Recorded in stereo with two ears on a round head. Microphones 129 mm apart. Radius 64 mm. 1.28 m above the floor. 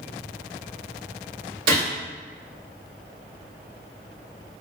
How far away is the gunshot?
About 1.9 m.